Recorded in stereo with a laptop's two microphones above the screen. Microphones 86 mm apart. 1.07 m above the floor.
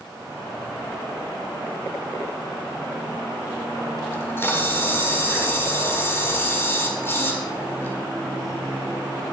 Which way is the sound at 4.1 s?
25° left (ahead or behind).